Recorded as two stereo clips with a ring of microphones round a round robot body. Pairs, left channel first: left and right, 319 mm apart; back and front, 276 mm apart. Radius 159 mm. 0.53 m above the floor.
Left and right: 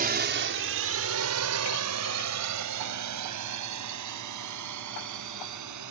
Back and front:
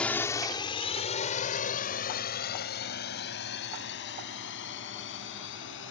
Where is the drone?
100° right; by 5.9 s 125° right.